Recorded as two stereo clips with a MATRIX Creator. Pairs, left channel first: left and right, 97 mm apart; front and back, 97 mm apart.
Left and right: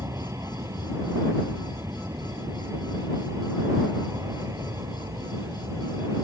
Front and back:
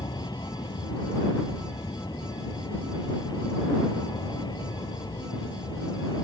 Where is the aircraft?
35° right.